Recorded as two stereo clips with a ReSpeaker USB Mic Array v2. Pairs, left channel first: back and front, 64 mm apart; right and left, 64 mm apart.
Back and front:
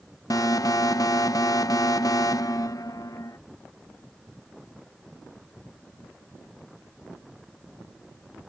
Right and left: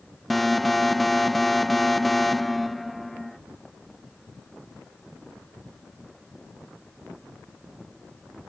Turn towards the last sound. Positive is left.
turn(degrees=180)